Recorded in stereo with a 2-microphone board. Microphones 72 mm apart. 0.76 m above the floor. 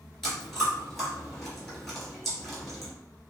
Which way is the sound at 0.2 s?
5° left (ahead or behind).